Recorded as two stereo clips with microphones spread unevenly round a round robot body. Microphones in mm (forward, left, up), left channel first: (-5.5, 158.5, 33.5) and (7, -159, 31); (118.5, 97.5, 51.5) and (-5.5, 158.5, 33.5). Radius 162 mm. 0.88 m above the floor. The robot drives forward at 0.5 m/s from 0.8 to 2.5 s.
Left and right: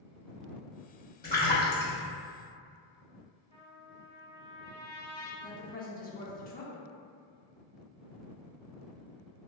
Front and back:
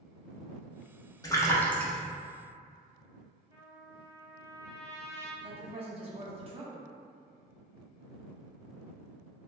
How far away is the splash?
About 0.9 m.